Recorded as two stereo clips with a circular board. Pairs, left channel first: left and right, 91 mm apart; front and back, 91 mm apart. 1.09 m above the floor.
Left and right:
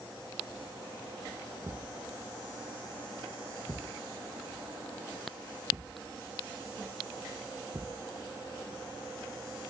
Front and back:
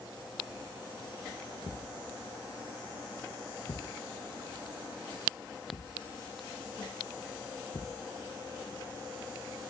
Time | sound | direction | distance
1.6 | a thud | 40° right | ?